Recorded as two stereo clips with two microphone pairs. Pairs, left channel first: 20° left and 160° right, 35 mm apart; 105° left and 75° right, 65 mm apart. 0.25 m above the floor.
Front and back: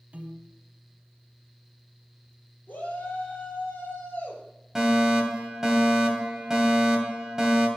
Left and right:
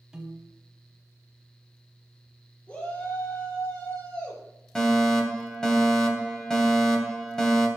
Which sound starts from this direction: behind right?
A piano, at 0.1 s.